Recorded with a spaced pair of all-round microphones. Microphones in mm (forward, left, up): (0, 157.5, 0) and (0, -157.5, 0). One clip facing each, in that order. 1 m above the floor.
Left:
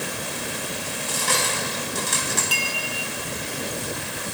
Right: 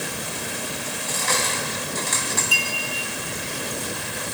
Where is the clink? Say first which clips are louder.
Even; 85° left, 2 m.